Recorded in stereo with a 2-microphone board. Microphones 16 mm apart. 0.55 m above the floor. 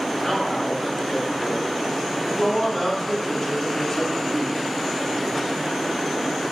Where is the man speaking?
10° left (ahead or behind), 3 m; by 4.6 s 25° left (ahead or behind), 1.3 m.